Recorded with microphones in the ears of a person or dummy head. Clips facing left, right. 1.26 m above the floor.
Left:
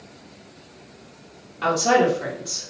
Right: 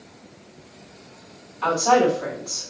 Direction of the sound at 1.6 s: 60° left (ahead or behind).